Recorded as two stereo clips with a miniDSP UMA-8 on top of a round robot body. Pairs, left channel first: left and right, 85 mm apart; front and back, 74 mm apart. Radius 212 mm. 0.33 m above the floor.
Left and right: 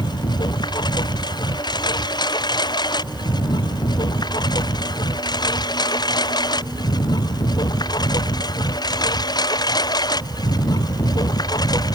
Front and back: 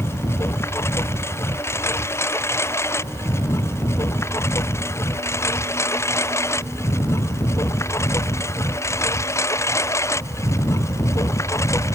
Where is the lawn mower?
55° left; by 11.9 s 50° left.